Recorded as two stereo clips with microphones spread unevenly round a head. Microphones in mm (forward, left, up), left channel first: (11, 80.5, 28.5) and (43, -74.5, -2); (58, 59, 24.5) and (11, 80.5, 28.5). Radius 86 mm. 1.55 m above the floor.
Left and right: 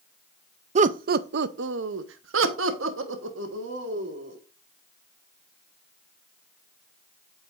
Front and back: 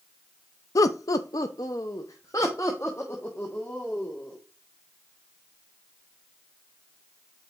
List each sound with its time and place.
0.8 s laughter: 30° right, 0.6 m; by 4.4 s 105° right, 1.9 m